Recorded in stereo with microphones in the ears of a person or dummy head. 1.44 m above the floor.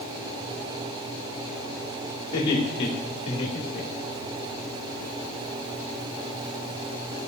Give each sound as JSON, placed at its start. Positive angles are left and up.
{"t": 2.3, "sound": "laughter", "side_deg": 30, "distance_m": 3.5}